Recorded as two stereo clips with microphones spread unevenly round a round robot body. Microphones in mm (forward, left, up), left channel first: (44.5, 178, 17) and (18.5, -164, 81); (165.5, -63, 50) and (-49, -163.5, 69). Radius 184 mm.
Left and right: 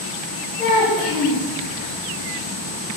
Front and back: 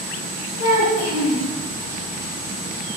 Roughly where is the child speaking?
Ahead.